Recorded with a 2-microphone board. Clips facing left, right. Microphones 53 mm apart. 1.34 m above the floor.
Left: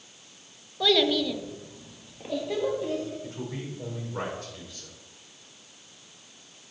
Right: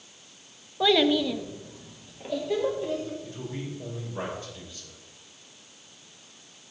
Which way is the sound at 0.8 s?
15° right (ahead or behind).